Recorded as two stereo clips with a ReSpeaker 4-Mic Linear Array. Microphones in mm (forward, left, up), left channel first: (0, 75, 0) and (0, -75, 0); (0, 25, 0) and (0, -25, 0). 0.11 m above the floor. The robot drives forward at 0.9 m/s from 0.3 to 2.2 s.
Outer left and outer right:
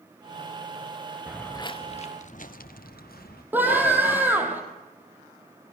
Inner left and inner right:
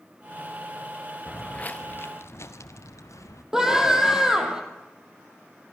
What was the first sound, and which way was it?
Footsteps, 10° right (ahead or behind).